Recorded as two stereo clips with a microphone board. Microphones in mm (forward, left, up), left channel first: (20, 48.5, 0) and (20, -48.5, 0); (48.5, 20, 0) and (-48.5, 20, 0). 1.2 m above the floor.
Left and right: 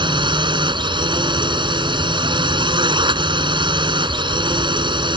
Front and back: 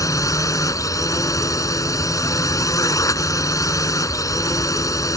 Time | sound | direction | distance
0.0 | a drone | 55° right | ?